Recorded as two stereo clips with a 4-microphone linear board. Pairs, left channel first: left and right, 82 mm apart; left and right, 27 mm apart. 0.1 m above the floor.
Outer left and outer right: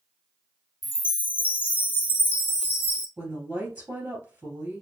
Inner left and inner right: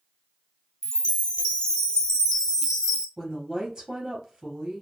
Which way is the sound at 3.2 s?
20° right (ahead or behind).